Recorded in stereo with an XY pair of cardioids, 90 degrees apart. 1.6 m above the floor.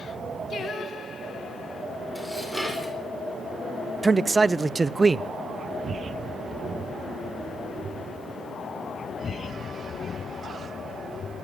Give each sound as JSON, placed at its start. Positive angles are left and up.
{"t": 0.5, "sound": "singing", "azimuth_deg": 60, "distance_m": 2.5}
{"t": 2.1, "sound": "dishes clattering", "azimuth_deg": 5, "distance_m": 4.0}
{"t": 4.0, "sound": "a man speaking", "azimuth_deg": -30, "distance_m": 0.5}